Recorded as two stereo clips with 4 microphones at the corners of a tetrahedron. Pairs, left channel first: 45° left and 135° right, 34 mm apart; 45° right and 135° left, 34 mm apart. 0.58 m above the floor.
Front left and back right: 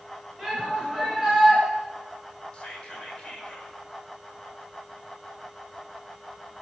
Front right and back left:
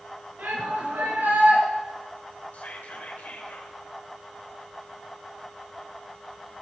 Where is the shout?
140° left, 7.5 m.